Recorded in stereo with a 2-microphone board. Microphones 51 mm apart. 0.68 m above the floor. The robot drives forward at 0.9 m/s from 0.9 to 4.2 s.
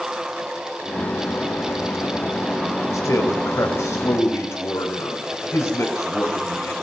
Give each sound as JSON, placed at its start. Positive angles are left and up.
{"t": 2.9, "sound": "a man speaking", "side_deg": 60, "distance_m": 3.5}